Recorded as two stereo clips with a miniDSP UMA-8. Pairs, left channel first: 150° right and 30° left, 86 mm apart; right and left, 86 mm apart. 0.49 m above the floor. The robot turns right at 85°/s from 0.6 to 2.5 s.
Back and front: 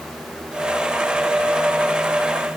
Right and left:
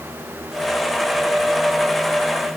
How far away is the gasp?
I don't hear a gasp.